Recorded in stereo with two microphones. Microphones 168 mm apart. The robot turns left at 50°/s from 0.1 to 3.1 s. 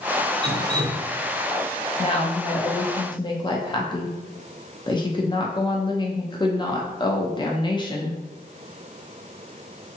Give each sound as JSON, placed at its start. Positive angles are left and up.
{"t": 0.4, "sound": "dripping", "azimuth_deg": -85, "distance_m": 0.5}
{"t": 2.0, "sound": "a woman speaking", "azimuth_deg": 105, "distance_m": 0.5}